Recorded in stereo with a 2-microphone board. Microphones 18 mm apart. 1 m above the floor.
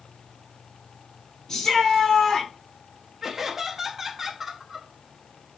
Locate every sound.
1.5 s a shout: 30° left (ahead or behind), 2.5 m
3.2 s laughter: 15° right (ahead or behind), 1.1 m